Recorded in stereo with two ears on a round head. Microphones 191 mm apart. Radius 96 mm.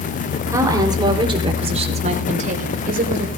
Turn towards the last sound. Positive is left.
turn(degrees=-45)  # may be behind; listen again after turning